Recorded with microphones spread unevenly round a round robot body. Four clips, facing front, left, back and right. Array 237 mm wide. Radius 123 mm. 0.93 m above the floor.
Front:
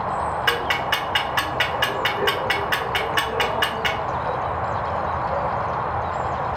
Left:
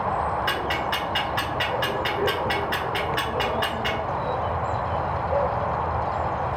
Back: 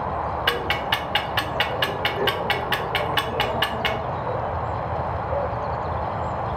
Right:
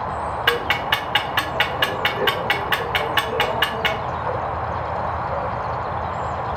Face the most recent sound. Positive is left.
turn(degrees=-85)